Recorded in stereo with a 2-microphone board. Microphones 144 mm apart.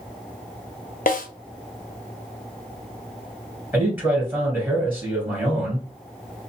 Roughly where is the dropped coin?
No dropped coin in this recording.